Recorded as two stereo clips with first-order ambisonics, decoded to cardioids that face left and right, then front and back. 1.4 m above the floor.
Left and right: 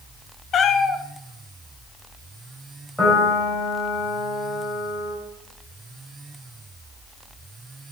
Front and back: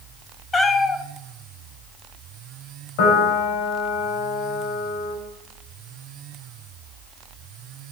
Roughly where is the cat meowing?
Ahead left.